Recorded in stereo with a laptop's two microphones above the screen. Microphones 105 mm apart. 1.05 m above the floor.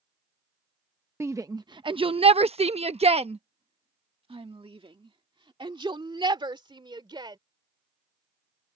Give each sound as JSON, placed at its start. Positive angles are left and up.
{"t": 1.2, "sound": "a shout", "side_deg": -25}